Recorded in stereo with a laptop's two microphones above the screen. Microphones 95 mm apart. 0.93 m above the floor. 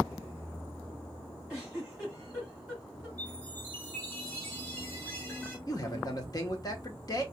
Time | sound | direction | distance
1.5 | a giggle | 5° right (ahead or behind) | 3.5 m
3.2 | a chime | 15° left (ahead or behind) | 3.5 m
5.7 | a man speaking | 40° left (ahead or behind) | 1.0 m